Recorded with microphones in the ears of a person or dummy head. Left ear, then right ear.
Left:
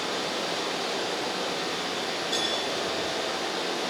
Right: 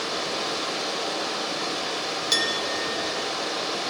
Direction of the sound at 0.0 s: 55° right (ahead or behind).